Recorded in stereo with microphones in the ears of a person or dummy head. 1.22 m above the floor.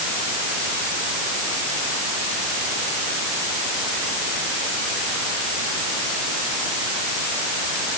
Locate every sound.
Only background noise.